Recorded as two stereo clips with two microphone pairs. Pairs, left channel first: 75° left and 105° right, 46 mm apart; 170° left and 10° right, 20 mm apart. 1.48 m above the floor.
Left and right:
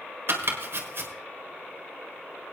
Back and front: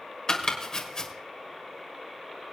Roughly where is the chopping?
Behind right.